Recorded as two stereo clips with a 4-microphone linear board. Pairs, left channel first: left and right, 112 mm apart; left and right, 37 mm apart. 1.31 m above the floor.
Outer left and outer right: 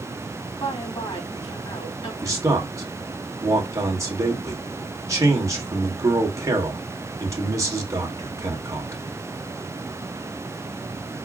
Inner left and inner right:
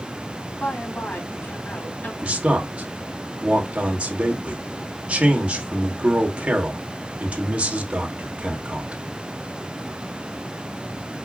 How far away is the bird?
I don't hear a bird.